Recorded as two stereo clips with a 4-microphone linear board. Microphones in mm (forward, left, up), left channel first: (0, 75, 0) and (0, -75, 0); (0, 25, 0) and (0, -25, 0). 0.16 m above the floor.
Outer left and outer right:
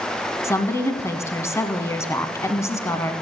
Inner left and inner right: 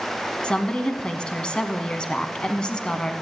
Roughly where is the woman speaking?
Centre.